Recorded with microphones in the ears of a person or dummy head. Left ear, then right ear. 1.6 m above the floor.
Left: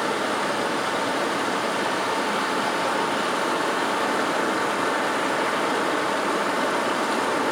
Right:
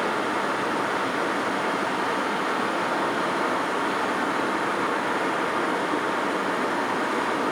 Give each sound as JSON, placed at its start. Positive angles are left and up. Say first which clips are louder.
{"t": 0.0, "sound": "running water", "louder": "left 1 dB", "side_deg": 20, "distance_m": 2.0}